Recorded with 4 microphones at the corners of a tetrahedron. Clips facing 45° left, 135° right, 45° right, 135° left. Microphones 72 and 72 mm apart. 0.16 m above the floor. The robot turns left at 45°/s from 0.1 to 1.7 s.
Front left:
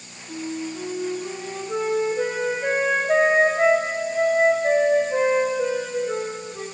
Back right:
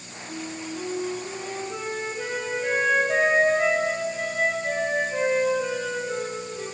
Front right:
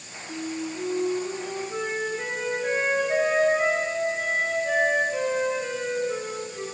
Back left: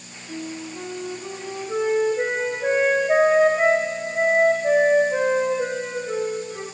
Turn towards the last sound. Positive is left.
turn(degrees=95)